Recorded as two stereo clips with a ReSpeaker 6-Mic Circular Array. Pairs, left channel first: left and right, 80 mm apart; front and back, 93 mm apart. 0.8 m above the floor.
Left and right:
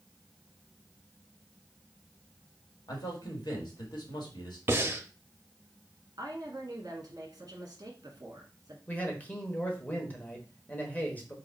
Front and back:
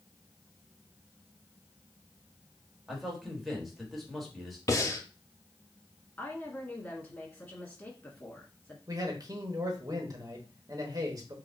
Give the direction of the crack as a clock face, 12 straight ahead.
No crack in this recording.